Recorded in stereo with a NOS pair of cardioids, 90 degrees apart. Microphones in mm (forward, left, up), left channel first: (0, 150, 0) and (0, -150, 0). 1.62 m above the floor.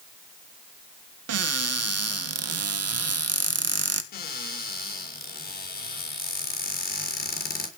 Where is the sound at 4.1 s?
30° left, 6 m.